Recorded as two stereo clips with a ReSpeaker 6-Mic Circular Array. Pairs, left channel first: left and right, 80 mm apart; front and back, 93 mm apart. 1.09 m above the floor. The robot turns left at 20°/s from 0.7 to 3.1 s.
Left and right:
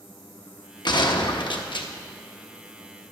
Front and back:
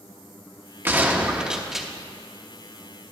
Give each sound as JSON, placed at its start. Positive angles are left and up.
{"t": 0.8, "sound": "a gunshot", "azimuth_deg": 115, "distance_m": 0.7}